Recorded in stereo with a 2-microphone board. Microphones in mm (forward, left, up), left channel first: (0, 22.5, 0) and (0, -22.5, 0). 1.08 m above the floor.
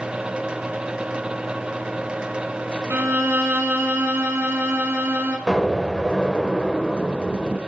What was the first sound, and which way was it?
A violin, 75° right (ahead or behind).